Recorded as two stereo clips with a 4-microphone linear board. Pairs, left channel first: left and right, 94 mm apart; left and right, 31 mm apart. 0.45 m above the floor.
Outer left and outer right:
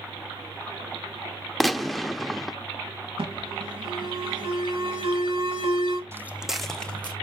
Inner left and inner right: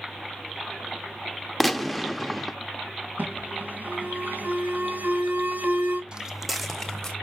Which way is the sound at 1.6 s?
Centre (ahead or behind).